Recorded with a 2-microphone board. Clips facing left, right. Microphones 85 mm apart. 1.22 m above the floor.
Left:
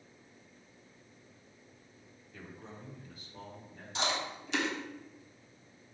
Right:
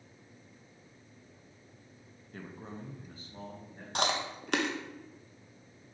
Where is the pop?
I don't hear a pop.